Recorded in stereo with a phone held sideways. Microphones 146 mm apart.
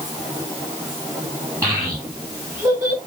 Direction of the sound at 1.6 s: 20° right (ahead or behind).